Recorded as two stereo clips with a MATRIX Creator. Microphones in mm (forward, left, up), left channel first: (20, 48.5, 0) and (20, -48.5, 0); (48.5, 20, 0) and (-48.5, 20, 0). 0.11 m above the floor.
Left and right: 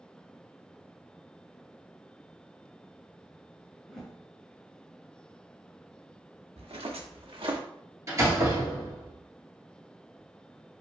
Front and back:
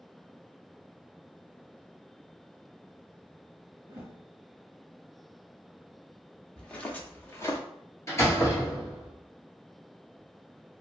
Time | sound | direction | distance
3.9 | a whoosh | 165° left | 1.0 m
6.6 | footsteps | 85° right | 1.1 m
8.1 | a door slam | 50° right | 1.4 m